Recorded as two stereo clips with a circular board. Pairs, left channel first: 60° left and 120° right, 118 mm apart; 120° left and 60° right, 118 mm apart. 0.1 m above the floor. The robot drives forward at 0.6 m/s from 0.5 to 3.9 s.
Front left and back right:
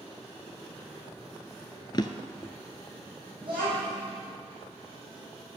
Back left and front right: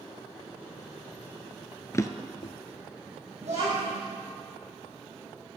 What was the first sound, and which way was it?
A drawer, 70° left.